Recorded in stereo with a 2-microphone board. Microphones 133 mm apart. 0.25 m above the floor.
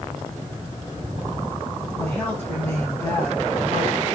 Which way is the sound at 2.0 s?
10° left (ahead or behind).